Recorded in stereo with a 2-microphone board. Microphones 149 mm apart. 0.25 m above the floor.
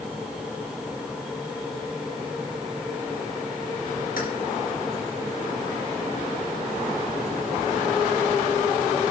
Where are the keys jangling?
70° left (ahead or behind), 3 m.